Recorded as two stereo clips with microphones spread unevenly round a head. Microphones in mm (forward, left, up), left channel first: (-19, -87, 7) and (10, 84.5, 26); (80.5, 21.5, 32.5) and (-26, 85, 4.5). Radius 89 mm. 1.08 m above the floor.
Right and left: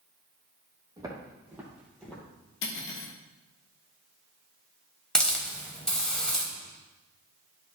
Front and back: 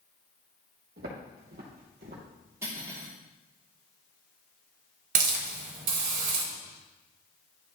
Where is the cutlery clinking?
130° right, 1.2 m.